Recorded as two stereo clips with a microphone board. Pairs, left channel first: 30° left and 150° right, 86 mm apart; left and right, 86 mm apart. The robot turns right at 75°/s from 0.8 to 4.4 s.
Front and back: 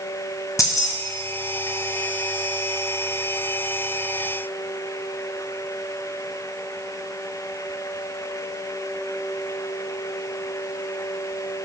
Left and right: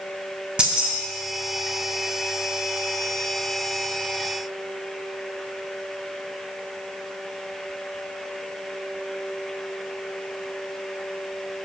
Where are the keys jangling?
10° right, 0.6 m; by 0.9 s 5° right, 0.6 m.